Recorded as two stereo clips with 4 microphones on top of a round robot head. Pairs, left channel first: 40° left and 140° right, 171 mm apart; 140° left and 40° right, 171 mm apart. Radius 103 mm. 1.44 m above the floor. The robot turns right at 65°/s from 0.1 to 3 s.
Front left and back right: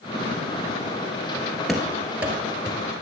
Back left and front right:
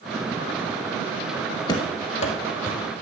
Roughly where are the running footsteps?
Behind left.